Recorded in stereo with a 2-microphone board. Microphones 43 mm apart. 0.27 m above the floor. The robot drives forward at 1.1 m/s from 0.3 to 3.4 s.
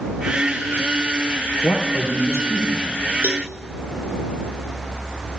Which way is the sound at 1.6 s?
80° left.